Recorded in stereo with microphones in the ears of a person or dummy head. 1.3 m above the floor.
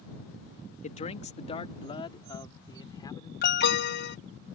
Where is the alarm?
55° left (ahead or behind).